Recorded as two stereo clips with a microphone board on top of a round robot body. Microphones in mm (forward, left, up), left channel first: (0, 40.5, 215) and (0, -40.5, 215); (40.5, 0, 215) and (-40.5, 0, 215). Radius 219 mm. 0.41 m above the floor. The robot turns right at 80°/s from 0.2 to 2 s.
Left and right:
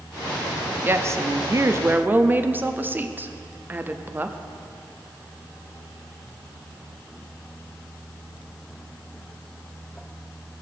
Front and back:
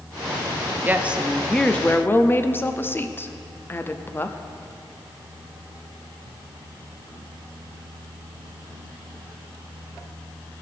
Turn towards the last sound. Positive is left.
turn(degrees=-40)